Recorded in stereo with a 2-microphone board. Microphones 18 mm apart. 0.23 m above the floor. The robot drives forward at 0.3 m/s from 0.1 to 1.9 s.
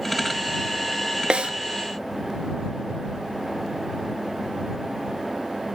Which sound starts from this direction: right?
A snare drum, at 1.3 s.